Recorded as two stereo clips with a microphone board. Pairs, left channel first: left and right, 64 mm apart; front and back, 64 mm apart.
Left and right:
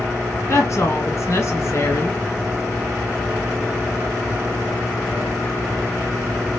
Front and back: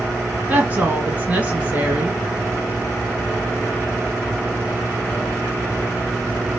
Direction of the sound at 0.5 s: 120° left.